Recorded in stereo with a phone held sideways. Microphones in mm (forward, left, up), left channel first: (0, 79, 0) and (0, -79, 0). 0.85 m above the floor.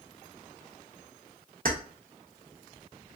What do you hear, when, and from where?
1.6 s keys jangling: 65° right (ahead or behind), 0.6 m